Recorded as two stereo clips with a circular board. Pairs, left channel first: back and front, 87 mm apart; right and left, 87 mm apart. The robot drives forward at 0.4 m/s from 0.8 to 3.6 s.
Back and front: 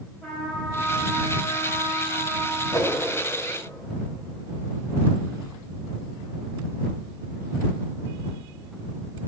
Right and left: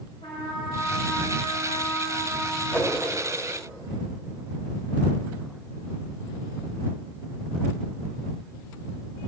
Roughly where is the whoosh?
Behind right.